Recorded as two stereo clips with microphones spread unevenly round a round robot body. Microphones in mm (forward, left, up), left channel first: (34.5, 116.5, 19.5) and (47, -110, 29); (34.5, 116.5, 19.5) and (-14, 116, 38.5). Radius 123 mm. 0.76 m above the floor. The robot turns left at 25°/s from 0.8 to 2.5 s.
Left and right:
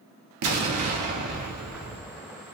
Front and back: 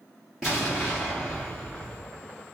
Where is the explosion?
80° right, 0.6 m; by 2.2 s 115° right, 0.6 m.